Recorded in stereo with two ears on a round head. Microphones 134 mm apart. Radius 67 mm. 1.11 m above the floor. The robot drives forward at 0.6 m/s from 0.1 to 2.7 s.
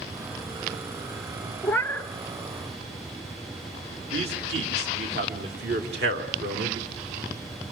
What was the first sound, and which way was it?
A cat meowing, 15° left (ahead or behind).